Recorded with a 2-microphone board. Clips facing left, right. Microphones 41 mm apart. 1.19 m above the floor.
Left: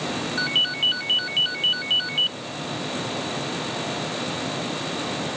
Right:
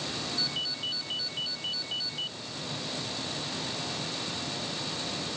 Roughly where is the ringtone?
Left.